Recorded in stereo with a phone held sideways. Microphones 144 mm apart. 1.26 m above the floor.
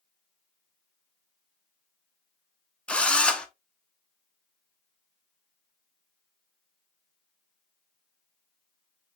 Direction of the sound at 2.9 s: 10° left (ahead or behind).